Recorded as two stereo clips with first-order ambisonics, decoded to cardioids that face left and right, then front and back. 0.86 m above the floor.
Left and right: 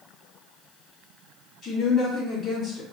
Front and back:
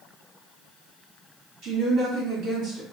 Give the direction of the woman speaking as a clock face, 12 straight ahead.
7 o'clock.